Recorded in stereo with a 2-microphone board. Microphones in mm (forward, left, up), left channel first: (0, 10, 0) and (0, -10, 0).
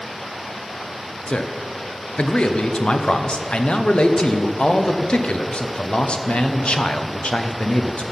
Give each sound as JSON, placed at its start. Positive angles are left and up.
{"t": 1.3, "sound": "a man speaking", "side_deg": 75, "distance_m": 0.8}